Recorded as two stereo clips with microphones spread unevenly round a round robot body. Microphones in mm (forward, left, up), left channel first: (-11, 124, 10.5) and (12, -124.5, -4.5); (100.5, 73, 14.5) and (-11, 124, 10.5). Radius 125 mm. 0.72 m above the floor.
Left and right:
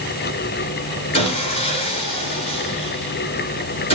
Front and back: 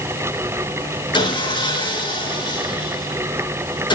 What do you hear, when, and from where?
1.1 s sawing: 25° left, 6.5 m